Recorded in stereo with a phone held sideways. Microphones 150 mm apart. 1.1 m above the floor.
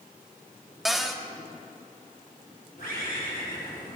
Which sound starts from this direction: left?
A bird, at 2.8 s.